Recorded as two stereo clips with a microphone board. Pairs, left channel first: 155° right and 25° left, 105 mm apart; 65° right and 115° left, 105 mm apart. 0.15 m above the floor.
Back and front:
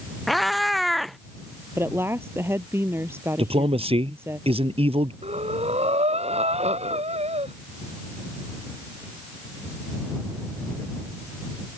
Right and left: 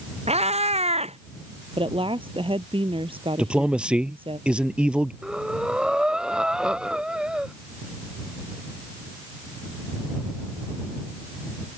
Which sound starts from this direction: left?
A woman speaking, at 1.8 s.